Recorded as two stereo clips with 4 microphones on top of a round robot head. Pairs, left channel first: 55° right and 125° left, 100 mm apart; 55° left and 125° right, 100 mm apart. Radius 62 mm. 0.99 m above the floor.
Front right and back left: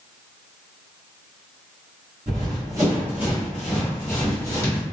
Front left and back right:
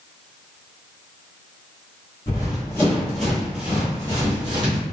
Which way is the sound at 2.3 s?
95° left.